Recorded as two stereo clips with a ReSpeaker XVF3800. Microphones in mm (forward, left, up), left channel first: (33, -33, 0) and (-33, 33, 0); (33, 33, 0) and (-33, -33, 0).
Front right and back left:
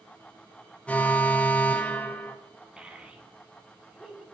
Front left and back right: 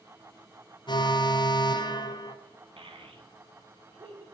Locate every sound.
0.9 s an alarm: 30° left, 1.0 m
2.8 s a child speaking: 145° right, 1.6 m